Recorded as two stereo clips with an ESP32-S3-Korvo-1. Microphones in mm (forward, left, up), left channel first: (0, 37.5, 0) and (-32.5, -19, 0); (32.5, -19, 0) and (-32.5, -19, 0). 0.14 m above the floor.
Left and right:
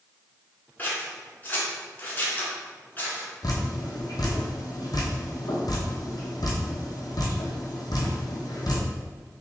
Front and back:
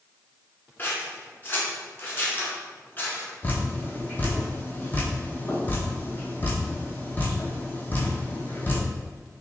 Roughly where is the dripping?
Ahead left.